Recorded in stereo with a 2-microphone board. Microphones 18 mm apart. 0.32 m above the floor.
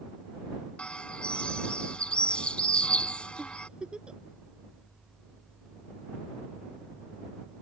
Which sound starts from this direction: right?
A giggle, at 3.4 s.